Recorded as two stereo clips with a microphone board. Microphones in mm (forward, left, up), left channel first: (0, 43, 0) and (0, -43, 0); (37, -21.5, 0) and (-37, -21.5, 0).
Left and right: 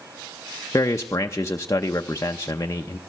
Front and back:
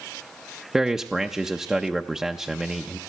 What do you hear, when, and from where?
0.7 s a man speaking: 100° left, 0.6 m